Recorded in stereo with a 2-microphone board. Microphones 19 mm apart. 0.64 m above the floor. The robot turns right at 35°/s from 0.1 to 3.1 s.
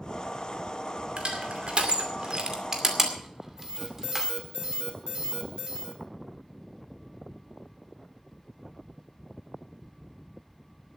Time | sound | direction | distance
1.2 | crushing | 60° right (ahead or behind) | 2.5 m
3.6 | an alarm | 40° right (ahead or behind) | 4 m